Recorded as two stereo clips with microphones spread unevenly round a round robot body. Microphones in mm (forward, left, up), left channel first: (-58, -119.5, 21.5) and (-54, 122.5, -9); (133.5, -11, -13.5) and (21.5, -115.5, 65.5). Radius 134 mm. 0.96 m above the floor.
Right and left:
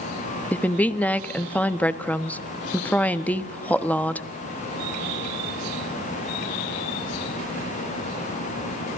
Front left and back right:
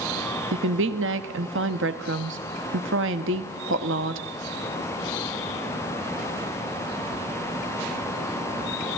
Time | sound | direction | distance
0.5 | a woman speaking | 175° right | 1.3 m